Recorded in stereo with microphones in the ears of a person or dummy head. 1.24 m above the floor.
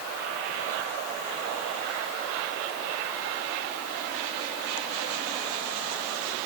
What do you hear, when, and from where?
Only background noise.